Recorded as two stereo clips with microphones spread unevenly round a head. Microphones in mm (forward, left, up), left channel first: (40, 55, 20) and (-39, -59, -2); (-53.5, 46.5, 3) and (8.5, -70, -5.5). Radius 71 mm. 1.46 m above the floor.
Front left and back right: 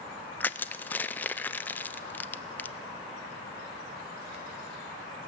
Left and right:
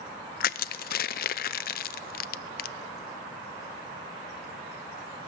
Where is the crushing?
135° left, 0.5 m.